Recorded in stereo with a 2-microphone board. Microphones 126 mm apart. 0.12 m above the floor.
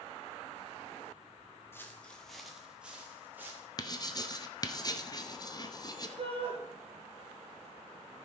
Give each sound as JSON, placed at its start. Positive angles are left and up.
{"t": 1.7, "sound": "footsteps", "side_deg": 20, "distance_m": 1.6}
{"t": 3.8, "sound": "writing", "side_deg": 30, "distance_m": 0.9}
{"t": 6.2, "sound": "a shout", "side_deg": -50, "distance_m": 3.5}